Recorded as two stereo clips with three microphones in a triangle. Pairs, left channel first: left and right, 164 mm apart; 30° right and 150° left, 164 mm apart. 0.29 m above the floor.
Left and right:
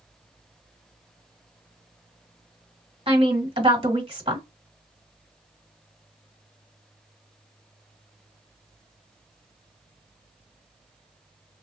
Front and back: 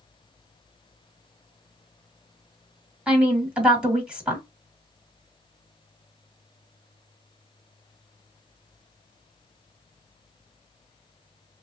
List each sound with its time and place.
3.1 s a woman speaking: 130° right, 1.5 m